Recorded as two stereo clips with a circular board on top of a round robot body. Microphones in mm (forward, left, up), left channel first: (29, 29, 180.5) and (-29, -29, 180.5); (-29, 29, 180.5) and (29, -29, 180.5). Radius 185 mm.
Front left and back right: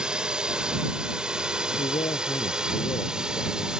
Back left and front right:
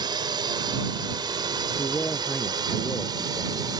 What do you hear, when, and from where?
0.0 s a drone: 55° right
1.8 s a man speaking: 60° left